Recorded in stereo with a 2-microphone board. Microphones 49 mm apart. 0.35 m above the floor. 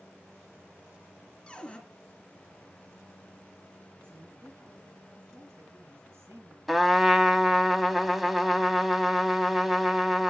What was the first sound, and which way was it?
A cupboard door, 20° left (ahead or behind).